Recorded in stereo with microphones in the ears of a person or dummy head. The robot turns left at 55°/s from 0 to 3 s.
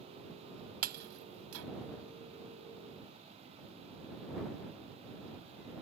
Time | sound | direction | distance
0.8 | breaking glass | 45° right (ahead or behind) | ?